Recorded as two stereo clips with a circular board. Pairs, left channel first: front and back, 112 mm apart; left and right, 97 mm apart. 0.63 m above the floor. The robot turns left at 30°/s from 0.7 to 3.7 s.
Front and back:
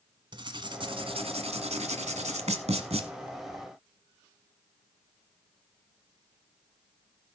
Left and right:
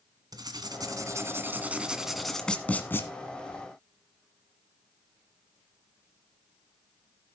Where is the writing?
135° right, 1.3 m; by 3.1 s 155° left, 1.3 m.